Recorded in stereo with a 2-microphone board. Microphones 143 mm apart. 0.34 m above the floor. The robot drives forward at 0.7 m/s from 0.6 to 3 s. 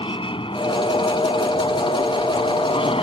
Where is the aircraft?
35° left (ahead or behind); by 3.0 s 40° left (ahead or behind).